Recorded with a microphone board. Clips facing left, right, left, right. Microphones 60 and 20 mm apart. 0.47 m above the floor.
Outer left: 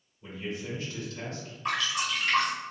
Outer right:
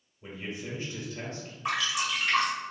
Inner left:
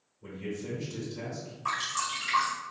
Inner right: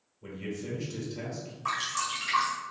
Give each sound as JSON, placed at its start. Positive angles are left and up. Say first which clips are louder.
{"t": 0.2, "sound": "a man speaking", "louder": "outer left 2 dB, even", "side_deg": -30, "distance_m": 1.0}
{"t": 1.6, "sound": "dripping", "louder": "even, even", "side_deg": -10, "distance_m": 1.2}